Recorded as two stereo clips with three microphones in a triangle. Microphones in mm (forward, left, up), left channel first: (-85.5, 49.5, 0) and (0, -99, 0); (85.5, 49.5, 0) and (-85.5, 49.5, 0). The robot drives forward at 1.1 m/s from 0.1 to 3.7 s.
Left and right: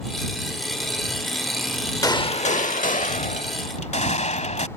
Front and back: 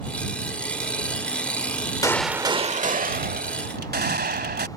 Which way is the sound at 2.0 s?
60° left.